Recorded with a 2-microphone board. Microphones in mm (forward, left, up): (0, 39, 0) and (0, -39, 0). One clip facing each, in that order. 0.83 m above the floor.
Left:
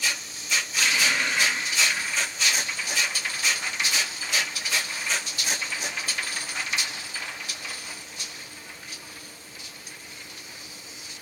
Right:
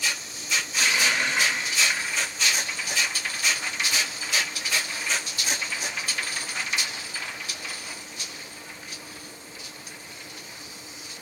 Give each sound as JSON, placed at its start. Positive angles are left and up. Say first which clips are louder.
{"t": 0.7, "sound": "a running tap", "louder": "right 1 dB", "side_deg": -25, "distance_m": 2.5}